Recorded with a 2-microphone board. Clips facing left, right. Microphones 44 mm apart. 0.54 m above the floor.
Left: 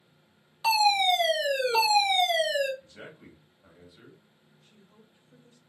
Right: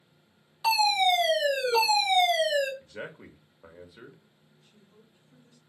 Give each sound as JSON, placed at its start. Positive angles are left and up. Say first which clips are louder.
{"t": 0.6, "sound": "a fire alarm", "louder": "left 1 dB", "side_deg": 5, "distance_m": 1.9}
{"t": 2.8, "sound": "a man speaking", "louder": "right 6 dB", "side_deg": -65, "distance_m": 1.5}
{"t": 4.6, "sound": "a woman speaking", "louder": "left 1 dB", "side_deg": 30, "distance_m": 2.5}